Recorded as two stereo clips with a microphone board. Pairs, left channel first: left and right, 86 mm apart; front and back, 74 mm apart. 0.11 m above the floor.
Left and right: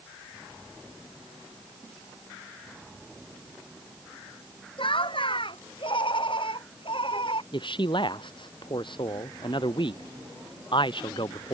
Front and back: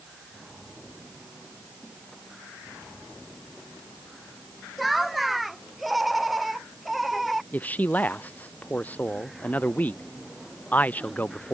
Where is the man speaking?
70° left.